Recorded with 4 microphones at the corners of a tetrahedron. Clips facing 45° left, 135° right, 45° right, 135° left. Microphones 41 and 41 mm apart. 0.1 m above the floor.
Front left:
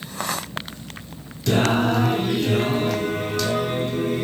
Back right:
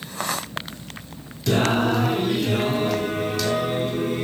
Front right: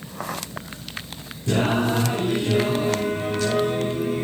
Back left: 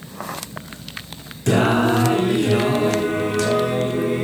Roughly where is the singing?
Behind left.